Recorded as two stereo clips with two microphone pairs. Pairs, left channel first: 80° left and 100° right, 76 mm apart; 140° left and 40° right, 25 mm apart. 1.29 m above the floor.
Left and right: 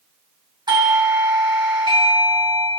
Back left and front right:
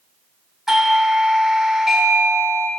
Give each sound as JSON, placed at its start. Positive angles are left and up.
{"t": 0.7, "sound": "a doorbell", "azimuth_deg": -120, "distance_m": 2.0}